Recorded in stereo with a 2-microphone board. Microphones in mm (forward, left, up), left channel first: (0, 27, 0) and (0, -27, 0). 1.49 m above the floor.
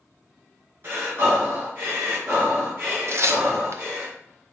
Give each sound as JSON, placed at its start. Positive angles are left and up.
{"t": 0.8, "sound": "breathing", "side_deg": -55, "distance_m": 3.0}
{"t": 3.1, "sound": "tearing paper", "side_deg": -55, "distance_m": 0.6}